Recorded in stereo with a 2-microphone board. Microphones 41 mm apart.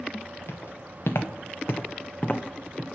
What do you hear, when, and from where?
0.5 s footsteps: 75° left (ahead or behind), 1.1 m; by 2.9 s 5° left (ahead or behind), 0.7 m